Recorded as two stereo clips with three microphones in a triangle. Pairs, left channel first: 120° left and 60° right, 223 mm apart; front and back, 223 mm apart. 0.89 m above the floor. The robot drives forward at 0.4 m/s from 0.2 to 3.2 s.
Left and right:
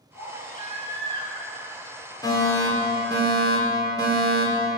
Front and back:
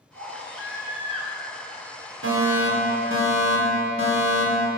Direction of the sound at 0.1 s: 170° left.